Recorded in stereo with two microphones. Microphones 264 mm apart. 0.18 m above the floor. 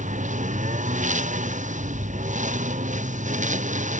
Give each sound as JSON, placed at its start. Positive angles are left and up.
{"t": 0.0, "sound": "a lawn mower", "side_deg": -30}